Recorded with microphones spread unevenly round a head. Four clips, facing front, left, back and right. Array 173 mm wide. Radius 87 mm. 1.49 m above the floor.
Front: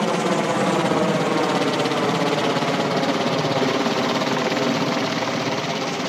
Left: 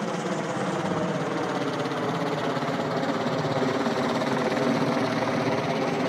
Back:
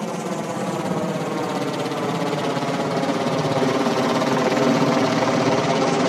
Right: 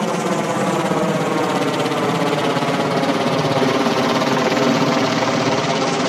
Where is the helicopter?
45° right; by 6.1 s 135° right.